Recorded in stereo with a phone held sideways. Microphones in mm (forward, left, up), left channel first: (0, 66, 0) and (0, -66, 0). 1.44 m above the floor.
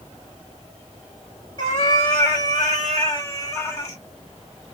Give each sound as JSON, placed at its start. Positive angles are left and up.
{"t": 1.6, "sound": "a cat meowing", "side_deg": 35, "distance_m": 1.5}